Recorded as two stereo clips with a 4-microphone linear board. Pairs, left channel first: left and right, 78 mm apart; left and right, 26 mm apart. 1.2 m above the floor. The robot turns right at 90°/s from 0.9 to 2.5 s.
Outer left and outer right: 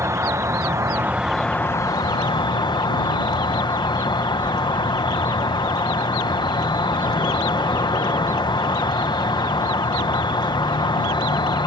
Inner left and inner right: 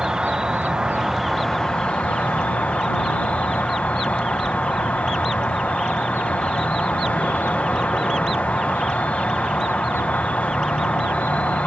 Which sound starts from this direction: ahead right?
An insect, at 0.0 s.